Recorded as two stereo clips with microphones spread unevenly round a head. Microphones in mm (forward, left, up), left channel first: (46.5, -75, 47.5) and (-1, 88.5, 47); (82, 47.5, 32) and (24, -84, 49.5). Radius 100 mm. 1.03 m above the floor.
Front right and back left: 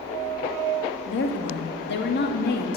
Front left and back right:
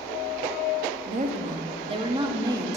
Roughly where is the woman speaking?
Right.